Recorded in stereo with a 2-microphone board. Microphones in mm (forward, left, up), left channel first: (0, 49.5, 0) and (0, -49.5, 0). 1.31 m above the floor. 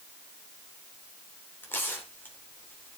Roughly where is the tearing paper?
Centre.